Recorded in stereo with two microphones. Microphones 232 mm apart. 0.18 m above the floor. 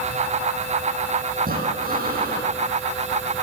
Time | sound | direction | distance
1.4 | breathing | 40° right (ahead or behind) | 8 m